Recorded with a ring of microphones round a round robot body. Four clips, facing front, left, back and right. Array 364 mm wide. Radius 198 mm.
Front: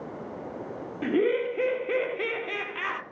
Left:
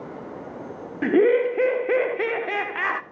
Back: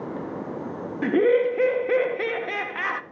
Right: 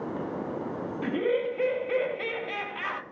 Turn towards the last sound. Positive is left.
turn(degrees=105)